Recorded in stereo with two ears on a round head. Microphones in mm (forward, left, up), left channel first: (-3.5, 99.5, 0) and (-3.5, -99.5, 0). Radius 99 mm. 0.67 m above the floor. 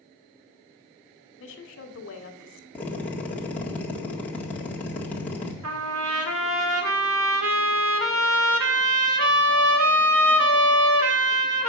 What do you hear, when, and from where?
1.4 s a woman speaking: 60° left (ahead or behind), 1.8 m
2.8 s a drill: 5° left (ahead or behind), 1.6 m
5.6 s a trumpet: 70° right (ahead or behind), 1.7 m